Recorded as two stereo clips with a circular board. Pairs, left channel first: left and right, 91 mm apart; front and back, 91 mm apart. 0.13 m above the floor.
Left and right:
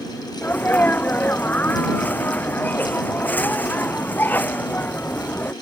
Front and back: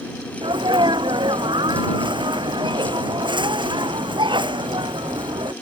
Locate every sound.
0.4 s a sneeze: 160° left